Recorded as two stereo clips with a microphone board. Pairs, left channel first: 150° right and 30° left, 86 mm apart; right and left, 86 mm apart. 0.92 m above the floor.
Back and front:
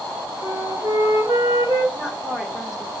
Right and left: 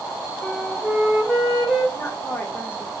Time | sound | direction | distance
0.4 | a flute | straight ahead | 1.2 m
1.9 | a woman speaking | 45° right | 1.0 m